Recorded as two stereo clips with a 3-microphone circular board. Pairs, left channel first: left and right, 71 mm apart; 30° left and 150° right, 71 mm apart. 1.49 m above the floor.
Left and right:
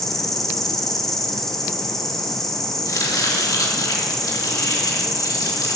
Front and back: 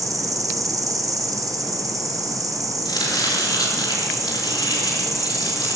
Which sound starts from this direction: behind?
An insect, at 0.0 s.